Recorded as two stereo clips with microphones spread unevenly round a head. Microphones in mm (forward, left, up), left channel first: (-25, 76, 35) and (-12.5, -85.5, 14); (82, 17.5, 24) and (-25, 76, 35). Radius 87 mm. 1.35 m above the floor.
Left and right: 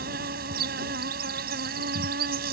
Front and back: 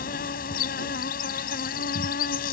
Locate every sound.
0.0 s an insect: 45° right